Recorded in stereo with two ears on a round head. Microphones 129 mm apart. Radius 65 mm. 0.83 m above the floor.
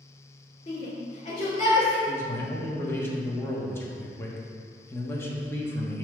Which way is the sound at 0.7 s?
40° left (ahead or behind).